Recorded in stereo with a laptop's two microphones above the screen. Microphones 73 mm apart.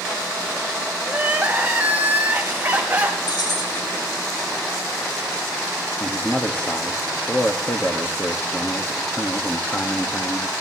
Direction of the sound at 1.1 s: 20° right (ahead or behind).